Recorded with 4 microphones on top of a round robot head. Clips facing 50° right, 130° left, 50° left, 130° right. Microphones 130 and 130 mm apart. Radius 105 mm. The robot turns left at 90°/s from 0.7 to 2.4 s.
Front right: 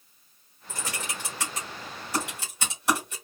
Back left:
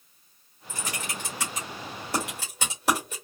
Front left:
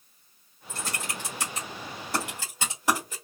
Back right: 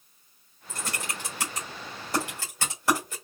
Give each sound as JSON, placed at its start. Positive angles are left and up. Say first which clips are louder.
{"t": 0.7, "sound": "typing on a keyboard", "louder": "even, even", "azimuth_deg": -90, "distance_m": 1.5}